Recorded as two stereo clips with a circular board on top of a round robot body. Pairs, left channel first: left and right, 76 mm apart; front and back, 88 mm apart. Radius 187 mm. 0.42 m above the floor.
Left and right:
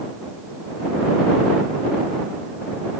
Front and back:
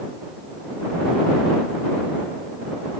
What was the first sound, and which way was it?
Only background noise.